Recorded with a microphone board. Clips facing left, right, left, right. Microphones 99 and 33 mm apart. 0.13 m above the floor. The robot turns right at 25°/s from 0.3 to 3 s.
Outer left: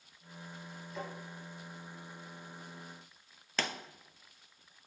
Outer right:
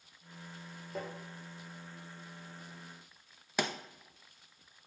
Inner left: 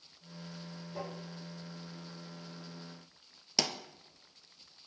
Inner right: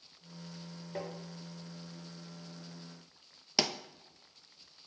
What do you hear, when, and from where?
0.9 s tapping: 50° right (ahead or behind), 1.8 m
3.6 s a pop: 15° right (ahead or behind), 0.6 m